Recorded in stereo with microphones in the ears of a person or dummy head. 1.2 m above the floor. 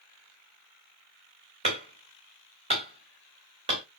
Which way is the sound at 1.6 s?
35° right (ahead or behind).